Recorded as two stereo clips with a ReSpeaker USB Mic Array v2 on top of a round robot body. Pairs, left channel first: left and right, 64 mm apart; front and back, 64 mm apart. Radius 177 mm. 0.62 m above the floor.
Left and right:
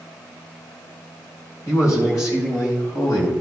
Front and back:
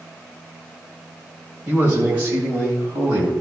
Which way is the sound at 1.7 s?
120° left.